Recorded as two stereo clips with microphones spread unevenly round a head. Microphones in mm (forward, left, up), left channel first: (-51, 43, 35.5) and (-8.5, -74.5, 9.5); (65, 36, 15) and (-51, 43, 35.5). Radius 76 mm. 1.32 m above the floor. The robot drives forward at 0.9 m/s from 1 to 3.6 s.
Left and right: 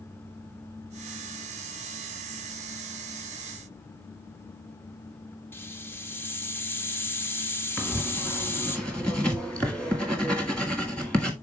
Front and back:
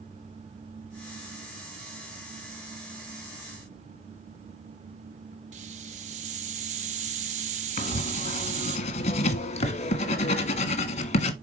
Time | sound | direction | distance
5.5 | a hiss | 175° left | 1.1 m
7.8 | writing | 30° left | 1.3 m